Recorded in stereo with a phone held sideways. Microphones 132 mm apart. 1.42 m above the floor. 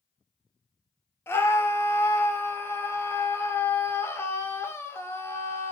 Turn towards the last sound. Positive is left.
turn(degrees=20)  # may be behind; listen again after turning